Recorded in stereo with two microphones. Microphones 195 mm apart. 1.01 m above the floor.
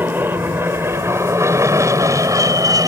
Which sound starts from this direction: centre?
An aircraft, at 0.0 s.